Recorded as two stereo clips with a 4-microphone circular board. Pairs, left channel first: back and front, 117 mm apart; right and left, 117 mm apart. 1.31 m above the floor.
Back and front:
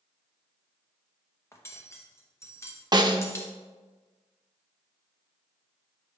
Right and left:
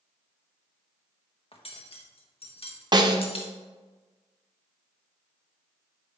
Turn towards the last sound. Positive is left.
turn(degrees=45)